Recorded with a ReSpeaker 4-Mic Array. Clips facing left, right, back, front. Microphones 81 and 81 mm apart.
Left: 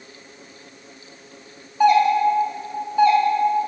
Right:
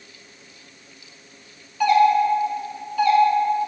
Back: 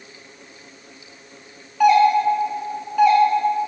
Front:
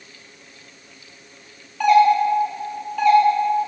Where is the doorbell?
105° left, 0.6 m.